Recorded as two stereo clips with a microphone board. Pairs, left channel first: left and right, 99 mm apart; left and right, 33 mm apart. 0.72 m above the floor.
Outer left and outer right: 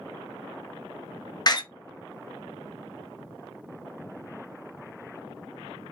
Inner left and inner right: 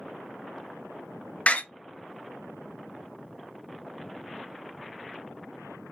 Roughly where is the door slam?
Left.